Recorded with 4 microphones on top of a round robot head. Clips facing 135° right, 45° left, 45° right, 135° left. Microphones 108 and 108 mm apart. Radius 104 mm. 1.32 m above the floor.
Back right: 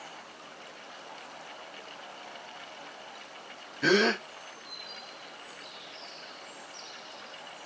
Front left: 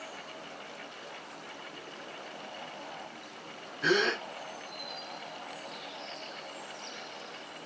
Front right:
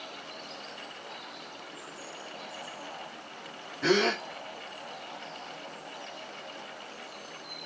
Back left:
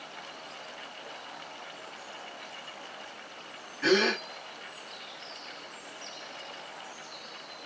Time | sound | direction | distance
3.8 | a gasp | 120° right | 2.5 m